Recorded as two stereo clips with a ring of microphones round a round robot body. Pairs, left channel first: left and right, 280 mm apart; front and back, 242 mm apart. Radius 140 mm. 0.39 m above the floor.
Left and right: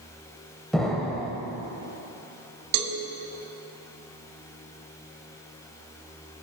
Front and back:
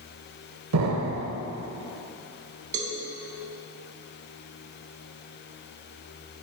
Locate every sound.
0.7 s an explosion: straight behind, 0.7 m
2.7 s a cowbell: 115° right, 0.7 m